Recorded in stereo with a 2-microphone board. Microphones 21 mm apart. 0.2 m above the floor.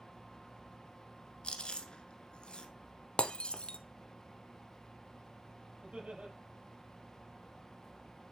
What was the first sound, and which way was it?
Chewing, 45° left (ahead or behind).